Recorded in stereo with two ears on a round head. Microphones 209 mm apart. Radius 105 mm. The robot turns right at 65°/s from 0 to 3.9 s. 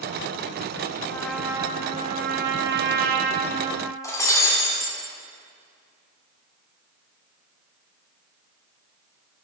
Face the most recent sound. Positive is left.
turn(degrees=15)  # may be behind; listen again after turning